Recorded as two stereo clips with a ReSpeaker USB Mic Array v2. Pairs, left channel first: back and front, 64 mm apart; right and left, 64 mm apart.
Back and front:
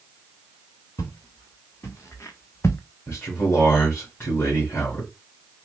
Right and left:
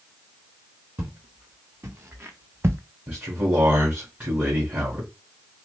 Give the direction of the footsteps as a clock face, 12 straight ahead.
7 o'clock.